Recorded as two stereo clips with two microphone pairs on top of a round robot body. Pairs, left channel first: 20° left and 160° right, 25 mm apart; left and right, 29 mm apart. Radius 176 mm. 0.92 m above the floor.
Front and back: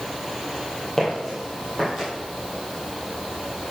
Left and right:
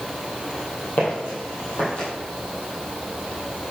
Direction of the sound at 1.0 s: 100° left.